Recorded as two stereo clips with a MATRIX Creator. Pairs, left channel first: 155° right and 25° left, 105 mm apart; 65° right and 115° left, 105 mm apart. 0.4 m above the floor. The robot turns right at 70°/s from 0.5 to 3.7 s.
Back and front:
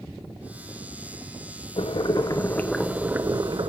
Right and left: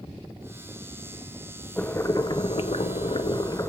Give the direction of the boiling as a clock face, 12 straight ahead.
5 o'clock.